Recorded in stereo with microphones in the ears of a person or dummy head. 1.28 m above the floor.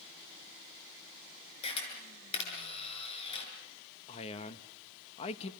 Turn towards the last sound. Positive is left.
turn(degrees=35)  # may be behind; listen again after turning